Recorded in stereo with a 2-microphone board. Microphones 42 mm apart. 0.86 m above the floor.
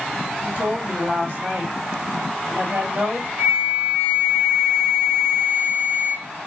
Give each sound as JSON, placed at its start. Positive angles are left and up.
{"t": 0.4, "sound": "a woman speaking", "side_deg": -45, "distance_m": 2.0}
{"t": 3.4, "sound": "a flute", "side_deg": -70, "distance_m": 2.0}